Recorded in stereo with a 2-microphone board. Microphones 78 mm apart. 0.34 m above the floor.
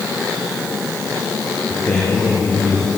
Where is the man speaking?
25° left (ahead or behind), 7 m.